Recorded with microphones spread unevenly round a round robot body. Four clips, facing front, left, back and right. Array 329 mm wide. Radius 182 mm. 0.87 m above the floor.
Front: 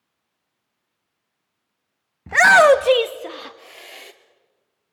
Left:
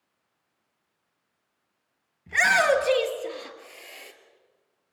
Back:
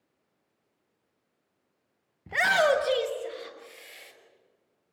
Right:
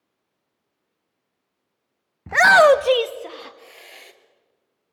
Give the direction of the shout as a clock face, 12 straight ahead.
1 o'clock.